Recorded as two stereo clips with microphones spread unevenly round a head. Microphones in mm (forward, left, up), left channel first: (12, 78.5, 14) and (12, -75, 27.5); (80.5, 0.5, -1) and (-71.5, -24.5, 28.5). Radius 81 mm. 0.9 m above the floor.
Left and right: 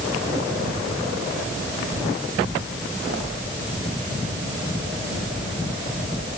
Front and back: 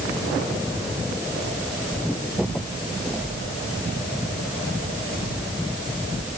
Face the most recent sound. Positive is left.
No sound to turn to.